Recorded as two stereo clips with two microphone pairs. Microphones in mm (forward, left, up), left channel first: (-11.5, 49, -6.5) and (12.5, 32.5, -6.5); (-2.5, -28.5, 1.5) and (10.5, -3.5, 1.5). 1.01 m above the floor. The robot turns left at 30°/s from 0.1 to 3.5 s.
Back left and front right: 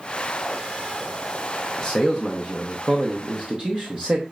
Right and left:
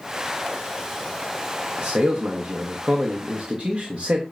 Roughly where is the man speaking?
Ahead left.